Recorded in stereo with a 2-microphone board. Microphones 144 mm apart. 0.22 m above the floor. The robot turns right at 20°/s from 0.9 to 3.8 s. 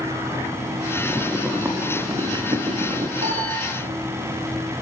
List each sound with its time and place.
1.0 s boiling: straight behind, 3 m; by 3.1 s 135° right, 3 m
3.2 s a piano: 60° right (ahead or behind), 8 m; by 3.6 s 50° right (ahead or behind), 8 m